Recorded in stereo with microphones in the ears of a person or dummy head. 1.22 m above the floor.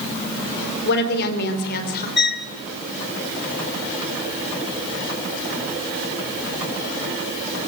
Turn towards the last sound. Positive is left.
turn(degrees=55)  # may be behind; listen again after turning